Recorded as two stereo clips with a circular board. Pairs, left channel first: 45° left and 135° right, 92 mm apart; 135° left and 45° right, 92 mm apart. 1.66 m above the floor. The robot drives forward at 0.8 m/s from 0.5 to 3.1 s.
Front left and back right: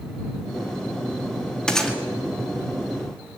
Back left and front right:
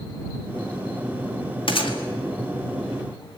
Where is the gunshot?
130° left, 2 m; by 2.0 s 135° left, 2.5 m.